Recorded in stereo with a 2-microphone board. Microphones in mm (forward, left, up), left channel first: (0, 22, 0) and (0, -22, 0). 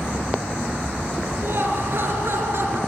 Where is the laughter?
55° right (ahead or behind), 4 m; by 2.8 s 60° right (ahead or behind), 3.5 m.